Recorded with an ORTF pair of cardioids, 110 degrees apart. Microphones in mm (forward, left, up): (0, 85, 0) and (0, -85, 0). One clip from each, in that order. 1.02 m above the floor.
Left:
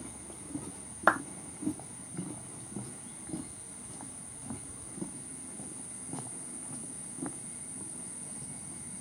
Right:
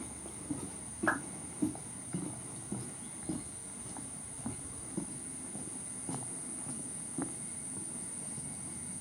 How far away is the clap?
About 0.9 m.